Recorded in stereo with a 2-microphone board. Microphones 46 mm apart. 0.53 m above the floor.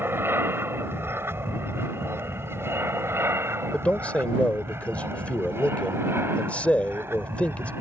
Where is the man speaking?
30° left (ahead or behind).